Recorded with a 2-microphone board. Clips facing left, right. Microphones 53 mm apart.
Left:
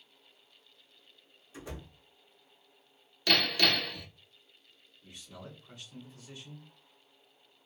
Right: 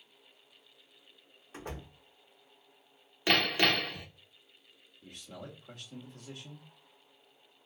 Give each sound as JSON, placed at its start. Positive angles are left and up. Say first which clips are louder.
{"t": 1.5, "sound": "a door slam", "louder": "right 2 dB", "side_deg": -50, "distance_m": 1.0}
{"t": 3.3, "sound": "hammering", "louder": "right 1 dB", "side_deg": -25, "distance_m": 0.8}
{"t": 5.0, "sound": "a man speaking", "louder": "right 2 dB", "side_deg": -55, "distance_m": 1.3}